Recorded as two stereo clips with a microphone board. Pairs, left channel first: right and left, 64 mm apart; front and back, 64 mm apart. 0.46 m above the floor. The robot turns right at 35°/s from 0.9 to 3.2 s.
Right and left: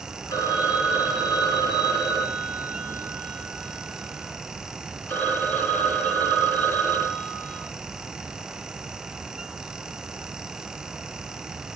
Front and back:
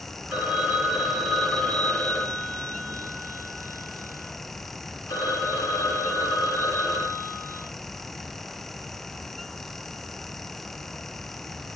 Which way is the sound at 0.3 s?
110° right.